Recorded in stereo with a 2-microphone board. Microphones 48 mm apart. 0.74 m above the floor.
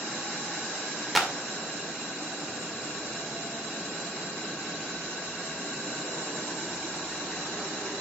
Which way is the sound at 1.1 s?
5° right (ahead or behind).